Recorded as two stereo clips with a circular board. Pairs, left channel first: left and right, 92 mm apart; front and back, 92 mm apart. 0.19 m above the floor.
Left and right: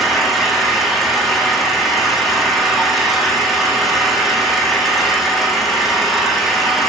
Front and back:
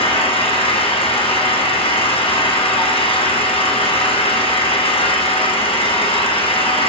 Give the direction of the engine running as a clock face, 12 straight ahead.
12 o'clock.